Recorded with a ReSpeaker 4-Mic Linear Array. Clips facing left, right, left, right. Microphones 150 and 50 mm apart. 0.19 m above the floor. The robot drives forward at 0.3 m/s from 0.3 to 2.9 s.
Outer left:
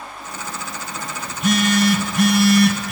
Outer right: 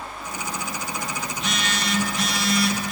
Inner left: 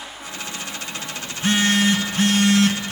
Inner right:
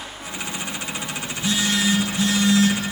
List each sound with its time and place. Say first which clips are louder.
1.3 s a phone buzzing: outer left 15 dB, inner left 4 dB; 55° left (ahead or behind), 1.3 m; by 2.9 s 75° left (ahead or behind), 1.1 m